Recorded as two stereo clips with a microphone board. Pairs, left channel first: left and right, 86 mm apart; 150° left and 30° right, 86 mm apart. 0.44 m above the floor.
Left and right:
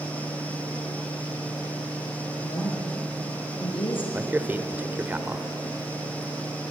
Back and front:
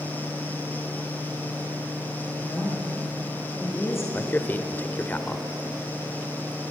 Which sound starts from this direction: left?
A woman speaking, at 2.4 s.